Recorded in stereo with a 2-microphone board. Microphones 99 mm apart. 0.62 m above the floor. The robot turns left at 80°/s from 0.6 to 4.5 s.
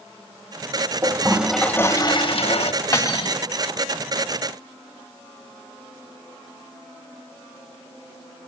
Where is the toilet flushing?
140° right, 1.3 m; by 2.7 s 80° left, 1.3 m.